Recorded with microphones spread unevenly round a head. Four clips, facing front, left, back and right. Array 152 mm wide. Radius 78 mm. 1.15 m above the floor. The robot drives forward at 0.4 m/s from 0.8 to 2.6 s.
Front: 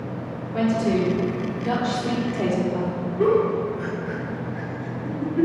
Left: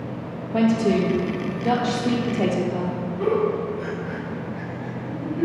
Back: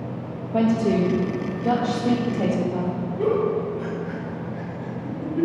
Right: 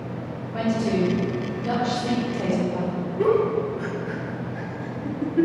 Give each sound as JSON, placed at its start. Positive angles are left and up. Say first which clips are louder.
{"t": 0.5, "sound": "a woman speaking", "louder": "left 4 dB, back 1 dB", "azimuth_deg": 145, "distance_m": 1.9}
{"t": 3.2, "sound": "a giggle", "louder": "right 2 dB, front 3 dB", "azimuth_deg": -130, "distance_m": 2.5}